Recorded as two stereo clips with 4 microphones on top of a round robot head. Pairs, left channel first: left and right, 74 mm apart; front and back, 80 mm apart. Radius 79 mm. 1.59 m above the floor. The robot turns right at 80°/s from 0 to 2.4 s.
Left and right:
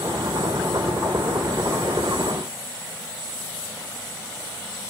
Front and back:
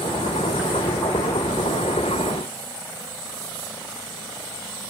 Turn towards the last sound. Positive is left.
No sound to turn to.